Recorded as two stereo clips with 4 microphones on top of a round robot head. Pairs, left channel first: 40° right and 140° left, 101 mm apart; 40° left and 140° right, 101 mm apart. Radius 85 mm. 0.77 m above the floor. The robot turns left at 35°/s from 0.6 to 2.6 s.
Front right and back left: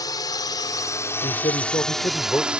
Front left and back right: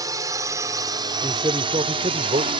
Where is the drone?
90° right; by 2.6 s 140° right.